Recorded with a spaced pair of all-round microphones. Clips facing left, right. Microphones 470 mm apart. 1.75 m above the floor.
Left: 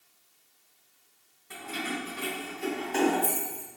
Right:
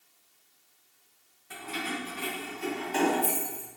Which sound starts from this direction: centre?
Keys jangling, at 1.5 s.